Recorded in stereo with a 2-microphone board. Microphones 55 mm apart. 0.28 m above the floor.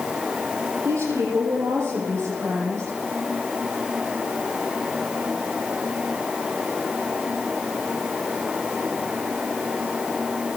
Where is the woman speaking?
70° right (ahead or behind), 9.5 m.